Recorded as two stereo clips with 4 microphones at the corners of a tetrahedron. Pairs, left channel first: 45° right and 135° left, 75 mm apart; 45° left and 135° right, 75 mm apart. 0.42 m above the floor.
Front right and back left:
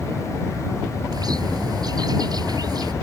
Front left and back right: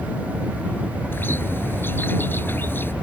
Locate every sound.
1.1 s a bird: 105° left